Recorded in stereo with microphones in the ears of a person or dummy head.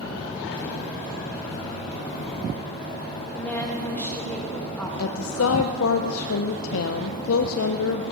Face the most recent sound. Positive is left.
turn(degrees=80)